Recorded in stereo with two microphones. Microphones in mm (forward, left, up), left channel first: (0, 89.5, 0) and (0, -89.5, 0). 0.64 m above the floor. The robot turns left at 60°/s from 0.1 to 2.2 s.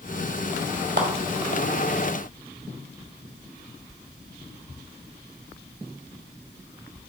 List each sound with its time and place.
1.0 s a clap: 75° right (ahead or behind), 1.4 m